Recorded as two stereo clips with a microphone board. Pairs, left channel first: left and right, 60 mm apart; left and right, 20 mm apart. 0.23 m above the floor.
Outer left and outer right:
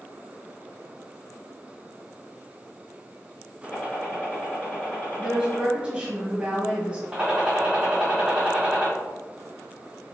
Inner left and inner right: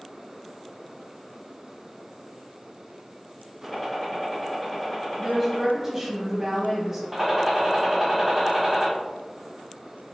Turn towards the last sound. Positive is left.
turn(degrees=-20)  # may be behind; listen again after turning